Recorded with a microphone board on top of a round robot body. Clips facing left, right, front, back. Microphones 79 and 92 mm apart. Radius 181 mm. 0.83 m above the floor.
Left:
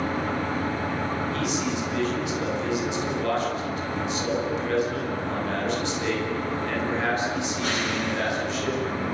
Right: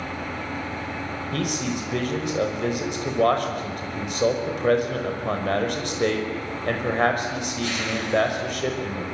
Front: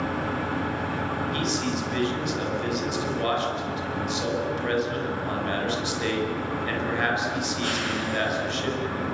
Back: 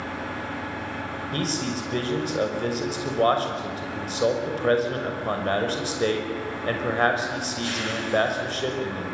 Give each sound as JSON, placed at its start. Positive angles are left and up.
{"t": 0.0, "sound": "an engine running", "azimuth_deg": 45, "distance_m": 5.5}
{"t": 1.3, "sound": "a man speaking", "azimuth_deg": -130, "distance_m": 6.0}